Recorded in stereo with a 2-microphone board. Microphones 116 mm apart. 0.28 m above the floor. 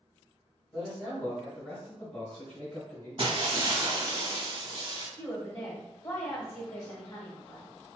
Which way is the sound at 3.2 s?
50° right (ahead or behind).